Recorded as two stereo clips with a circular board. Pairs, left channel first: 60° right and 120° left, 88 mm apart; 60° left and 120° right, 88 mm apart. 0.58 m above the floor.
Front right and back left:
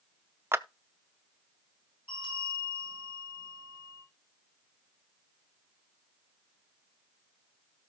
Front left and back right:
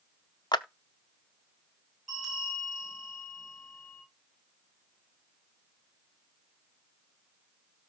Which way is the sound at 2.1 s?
35° right.